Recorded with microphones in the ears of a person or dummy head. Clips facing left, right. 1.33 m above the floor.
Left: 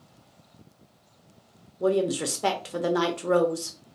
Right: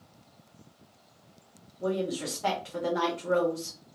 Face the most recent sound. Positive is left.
turn(degrees=60)  # may be behind; listen again after turning